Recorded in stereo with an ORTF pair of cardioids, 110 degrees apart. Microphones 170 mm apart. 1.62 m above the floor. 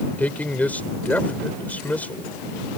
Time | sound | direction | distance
0.2 | a man speaking | 10° left | ?